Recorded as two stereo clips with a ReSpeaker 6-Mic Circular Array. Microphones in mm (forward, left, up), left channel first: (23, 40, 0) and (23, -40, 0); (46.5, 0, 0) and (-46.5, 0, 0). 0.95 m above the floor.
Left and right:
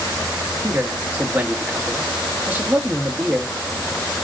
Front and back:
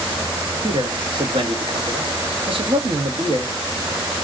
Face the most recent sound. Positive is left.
turn(degrees=-155)